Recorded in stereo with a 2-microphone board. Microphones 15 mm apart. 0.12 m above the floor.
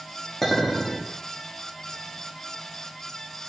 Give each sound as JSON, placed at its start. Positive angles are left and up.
{"t": 0.4, "sound": "a clink", "side_deg": 20, "distance_m": 4.5}